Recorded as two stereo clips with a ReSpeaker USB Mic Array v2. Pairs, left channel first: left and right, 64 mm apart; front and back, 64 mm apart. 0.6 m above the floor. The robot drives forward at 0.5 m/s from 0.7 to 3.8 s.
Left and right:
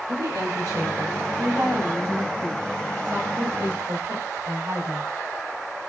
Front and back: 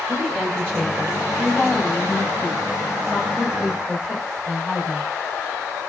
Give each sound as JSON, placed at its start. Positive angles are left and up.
{"t": 0.1, "sound": "a woman speaking", "azimuth_deg": -80, "distance_m": 3.0}